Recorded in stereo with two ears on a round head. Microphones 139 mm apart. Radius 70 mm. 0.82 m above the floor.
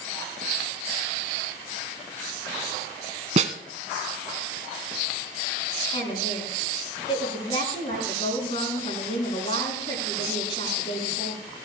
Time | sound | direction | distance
3.4 | a snare drum | 50° right (ahead or behind) | 1.1 m
5.9 | a woman speaking | 40° left (ahead or behind) | 7.5 m